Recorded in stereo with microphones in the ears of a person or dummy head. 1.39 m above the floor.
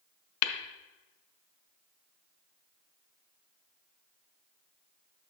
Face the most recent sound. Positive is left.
turn(degrees=85)